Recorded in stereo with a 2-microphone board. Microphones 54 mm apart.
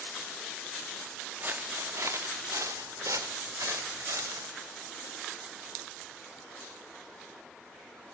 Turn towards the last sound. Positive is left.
turn(degrees=-75)  # may be behind; listen again after turning